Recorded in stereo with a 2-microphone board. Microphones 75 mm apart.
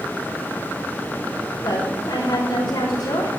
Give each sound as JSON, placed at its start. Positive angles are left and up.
{"t": 1.6, "sound": "a woman speaking", "side_deg": 85, "distance_m": 4.5}